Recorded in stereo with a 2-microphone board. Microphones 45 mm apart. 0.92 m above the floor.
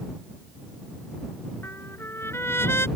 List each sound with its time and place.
1.6 s a trumpet: 65° left (ahead or behind)